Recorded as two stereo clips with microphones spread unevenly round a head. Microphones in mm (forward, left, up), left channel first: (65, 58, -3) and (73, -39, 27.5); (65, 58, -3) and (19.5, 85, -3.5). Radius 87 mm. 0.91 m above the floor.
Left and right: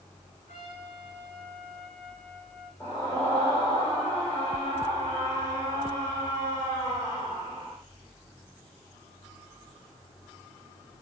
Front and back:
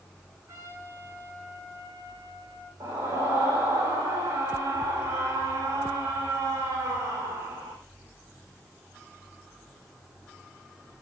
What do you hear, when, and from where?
0.5 s a trumpet: 130° left, 7 m
2.8 s a scream: 170° left, 3.5 m